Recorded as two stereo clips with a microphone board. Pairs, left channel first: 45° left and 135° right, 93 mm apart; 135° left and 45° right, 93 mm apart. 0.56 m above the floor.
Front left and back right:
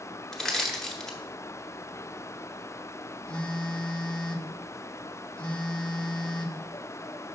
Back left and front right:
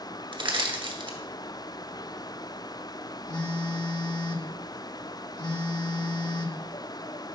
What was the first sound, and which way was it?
Crushing, 40° right.